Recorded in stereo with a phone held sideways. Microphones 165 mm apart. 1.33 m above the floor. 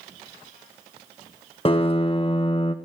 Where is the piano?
35° left (ahead or behind), 0.8 m.